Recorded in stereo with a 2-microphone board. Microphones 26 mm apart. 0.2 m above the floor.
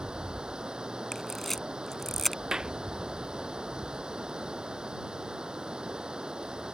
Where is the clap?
30° right (ahead or behind).